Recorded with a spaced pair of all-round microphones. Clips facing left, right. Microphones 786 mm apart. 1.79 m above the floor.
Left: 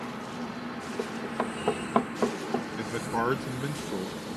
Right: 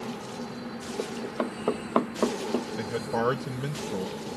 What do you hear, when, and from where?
1.0 s running footsteps: 30° left (ahead or behind); by 2.7 s 25° left (ahead or behind)
2.8 s a man speaking: 15° right (ahead or behind)